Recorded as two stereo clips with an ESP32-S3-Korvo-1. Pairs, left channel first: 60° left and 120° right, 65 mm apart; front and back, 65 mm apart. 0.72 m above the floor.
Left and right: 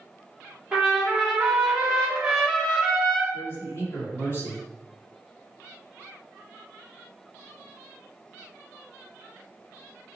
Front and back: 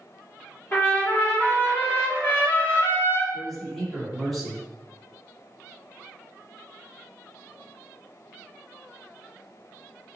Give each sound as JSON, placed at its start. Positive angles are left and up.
{"t": 0.7, "sound": "a trumpet", "azimuth_deg": -45, "distance_m": 1.3}
{"t": 3.3, "sound": "a man speaking", "azimuth_deg": 85, "distance_m": 1.9}